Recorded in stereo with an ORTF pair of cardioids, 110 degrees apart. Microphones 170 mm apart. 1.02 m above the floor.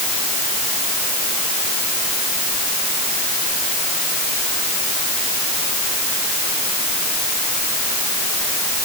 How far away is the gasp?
No gasp in this recording.